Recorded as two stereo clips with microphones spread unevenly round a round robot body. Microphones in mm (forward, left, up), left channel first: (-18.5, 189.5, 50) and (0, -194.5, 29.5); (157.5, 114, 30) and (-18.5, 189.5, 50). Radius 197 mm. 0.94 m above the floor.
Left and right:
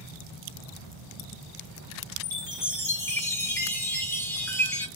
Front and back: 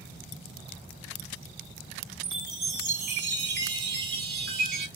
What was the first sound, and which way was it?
A chime, 175° left.